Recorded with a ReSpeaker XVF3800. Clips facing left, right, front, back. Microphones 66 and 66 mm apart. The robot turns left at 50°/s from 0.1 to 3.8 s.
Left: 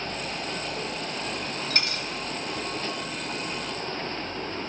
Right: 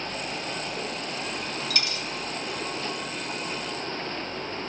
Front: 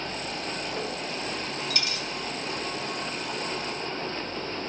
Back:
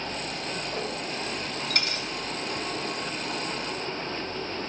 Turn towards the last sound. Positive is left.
turn(degrees=40)